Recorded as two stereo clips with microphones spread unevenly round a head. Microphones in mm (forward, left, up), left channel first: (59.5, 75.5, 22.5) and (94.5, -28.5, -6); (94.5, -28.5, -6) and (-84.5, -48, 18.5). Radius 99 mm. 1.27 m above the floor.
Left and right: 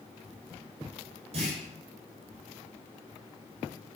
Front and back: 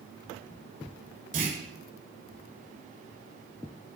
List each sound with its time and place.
1.3 s a clunk: 130° right, 6 m